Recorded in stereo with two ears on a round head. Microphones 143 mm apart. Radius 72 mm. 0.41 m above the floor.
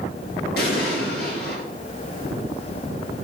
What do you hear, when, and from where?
0.6 s an explosion: 70° left (ahead or behind), 4.5 m